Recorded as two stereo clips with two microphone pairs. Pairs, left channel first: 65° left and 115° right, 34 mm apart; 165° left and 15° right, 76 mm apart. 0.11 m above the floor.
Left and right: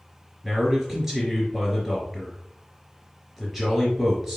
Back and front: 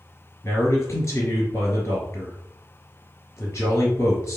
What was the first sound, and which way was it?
A man speaking, 165° left.